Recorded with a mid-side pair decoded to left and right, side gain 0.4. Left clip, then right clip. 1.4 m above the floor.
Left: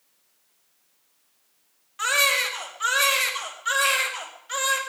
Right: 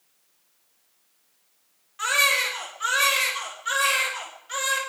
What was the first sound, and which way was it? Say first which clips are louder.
A baby crying: even; 25° left.